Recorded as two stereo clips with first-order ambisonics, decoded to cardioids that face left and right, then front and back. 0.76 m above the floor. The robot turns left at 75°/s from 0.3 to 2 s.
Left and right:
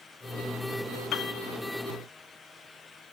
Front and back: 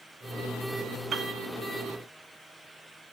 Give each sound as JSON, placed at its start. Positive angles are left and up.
{"t": 1.1, "sound": "a piano", "azimuth_deg": 125, "distance_m": 1.0}